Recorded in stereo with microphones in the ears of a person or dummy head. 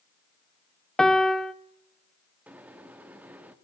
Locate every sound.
1.0 s a piano: centre (ahead or behind), 0.6 m
2.5 s a microwave: 10° right (ahead or behind), 1.5 m